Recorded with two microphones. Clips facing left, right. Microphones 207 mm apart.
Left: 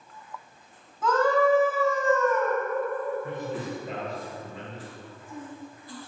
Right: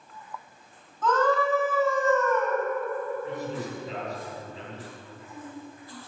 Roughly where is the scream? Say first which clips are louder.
Left 2 dB; centre.